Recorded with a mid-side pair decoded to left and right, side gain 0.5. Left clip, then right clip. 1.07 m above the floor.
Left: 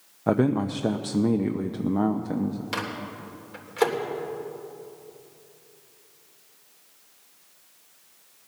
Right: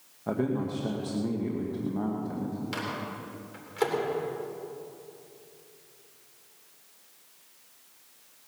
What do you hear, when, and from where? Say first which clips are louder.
0.3 s a man speaking: left 7 dB; 55° left, 0.8 m
2.7 s a microwave: left 1 dB; 30° left, 3 m